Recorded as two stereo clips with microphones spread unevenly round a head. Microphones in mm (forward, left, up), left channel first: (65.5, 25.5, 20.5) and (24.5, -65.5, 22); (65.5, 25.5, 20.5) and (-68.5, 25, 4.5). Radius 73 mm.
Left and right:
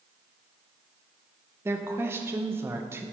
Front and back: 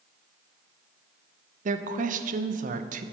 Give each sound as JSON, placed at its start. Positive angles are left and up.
{"t": 1.6, "sound": "a woman speaking", "azimuth_deg": 175, "distance_m": 0.7}